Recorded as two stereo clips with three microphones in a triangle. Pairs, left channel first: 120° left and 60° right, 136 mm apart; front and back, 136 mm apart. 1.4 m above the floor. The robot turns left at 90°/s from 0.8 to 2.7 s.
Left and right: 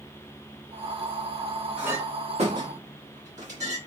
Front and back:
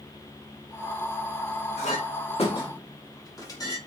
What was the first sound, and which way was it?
A clink, 25° left.